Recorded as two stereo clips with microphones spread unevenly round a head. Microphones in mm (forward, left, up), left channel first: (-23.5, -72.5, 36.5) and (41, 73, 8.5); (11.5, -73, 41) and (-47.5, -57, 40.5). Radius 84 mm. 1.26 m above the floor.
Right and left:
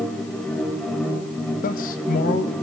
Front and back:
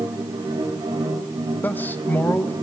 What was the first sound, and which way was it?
A machine running, 160° left.